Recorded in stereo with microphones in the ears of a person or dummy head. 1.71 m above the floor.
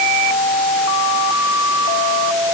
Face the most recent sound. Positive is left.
No sound to turn to.